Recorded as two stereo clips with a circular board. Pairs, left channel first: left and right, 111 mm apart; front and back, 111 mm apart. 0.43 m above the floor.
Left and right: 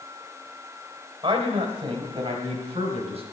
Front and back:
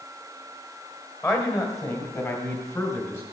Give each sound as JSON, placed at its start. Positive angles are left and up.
{"t": 1.2, "sound": "a man speaking", "azimuth_deg": -55, "distance_m": 2.0}